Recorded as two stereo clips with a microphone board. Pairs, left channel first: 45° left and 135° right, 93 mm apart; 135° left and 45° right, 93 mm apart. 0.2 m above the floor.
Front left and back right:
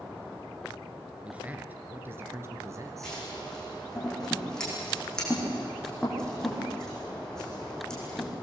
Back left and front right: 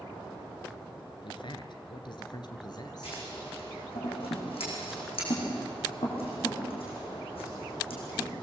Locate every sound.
1.2 s a man speaking: 150° left, 2.5 m; by 3.2 s 175° left, 3 m
3.0 s scissors: 130° left, 9 m